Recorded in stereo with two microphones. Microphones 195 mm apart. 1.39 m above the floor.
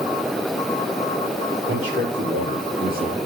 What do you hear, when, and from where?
1.7 s a man speaking: 80° right, 2.5 m; by 3.2 s 40° right (ahead or behind), 2 m